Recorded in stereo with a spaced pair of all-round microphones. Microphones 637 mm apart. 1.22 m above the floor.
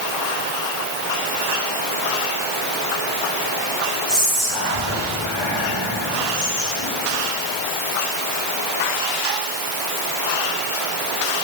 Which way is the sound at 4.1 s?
25° right (ahead or behind).